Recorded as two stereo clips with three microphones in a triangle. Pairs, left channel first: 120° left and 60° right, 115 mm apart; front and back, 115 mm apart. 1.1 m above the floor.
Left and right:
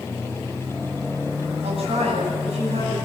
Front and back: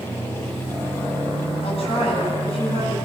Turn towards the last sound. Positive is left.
turn(degrees=-30)